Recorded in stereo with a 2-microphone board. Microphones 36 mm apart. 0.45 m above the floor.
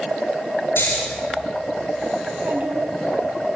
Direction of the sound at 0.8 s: 75° left (ahead or behind).